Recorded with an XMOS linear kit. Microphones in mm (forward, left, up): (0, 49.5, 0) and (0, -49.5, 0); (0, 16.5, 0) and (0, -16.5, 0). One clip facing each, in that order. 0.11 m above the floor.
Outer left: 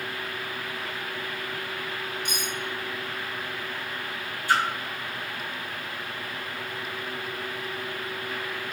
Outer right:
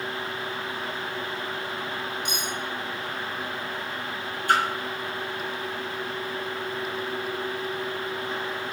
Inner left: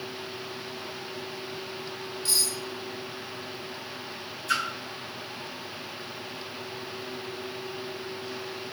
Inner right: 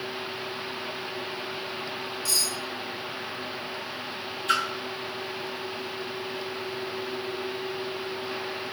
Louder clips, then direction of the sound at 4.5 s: Outer right 1 dB, inner right 2 dB; 55° right (ahead or behind).